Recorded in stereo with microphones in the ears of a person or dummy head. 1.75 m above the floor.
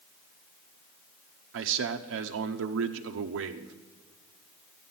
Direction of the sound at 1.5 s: 65° right (ahead or behind).